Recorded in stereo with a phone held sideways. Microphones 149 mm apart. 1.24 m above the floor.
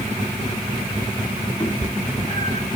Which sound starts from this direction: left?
A cat meowing, at 1.6 s.